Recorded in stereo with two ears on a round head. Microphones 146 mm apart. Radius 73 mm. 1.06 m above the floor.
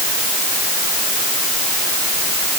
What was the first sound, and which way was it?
Only background noise.